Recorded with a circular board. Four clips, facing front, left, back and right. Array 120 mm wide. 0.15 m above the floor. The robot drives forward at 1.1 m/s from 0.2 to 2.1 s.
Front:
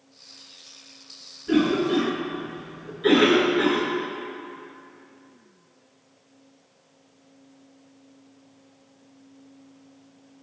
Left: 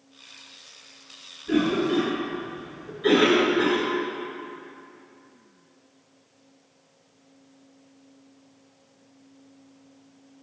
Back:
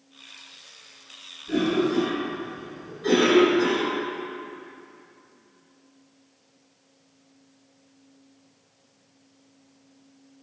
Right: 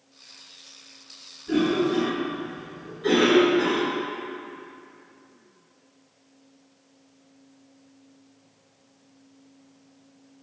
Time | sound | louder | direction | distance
1.5 | a cough | even, front 2 dB | 10° left | 2 m